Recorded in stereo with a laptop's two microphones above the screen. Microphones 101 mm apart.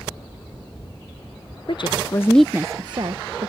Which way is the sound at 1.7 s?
60° left (ahead or behind).